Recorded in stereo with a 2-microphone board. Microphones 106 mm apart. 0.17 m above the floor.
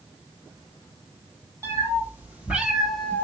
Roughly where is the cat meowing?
Right.